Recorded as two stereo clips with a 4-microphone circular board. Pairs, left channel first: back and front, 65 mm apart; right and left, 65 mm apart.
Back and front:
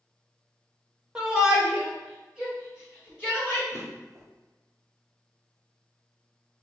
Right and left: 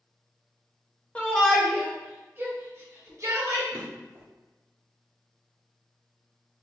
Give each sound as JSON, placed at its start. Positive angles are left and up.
{"t": 1.1, "sound": "a shout", "azimuth_deg": -55, "distance_m": 0.9}
{"t": 3.7, "sound": "a drawer", "azimuth_deg": 35, "distance_m": 1.6}